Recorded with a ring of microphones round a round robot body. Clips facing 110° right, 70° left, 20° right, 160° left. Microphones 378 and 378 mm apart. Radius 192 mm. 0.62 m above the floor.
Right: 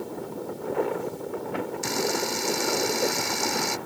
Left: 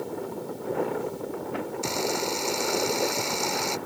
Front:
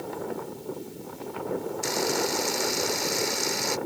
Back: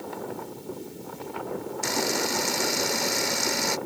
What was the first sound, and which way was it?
A camera shutter, straight behind.